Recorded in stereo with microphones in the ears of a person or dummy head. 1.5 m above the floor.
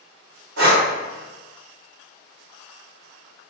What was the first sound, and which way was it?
Breathing, 70° right (ahead or behind).